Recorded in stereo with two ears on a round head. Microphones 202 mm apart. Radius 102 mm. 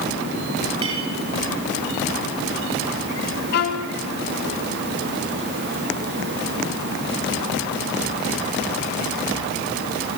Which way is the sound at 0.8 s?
25° right (ahead or behind).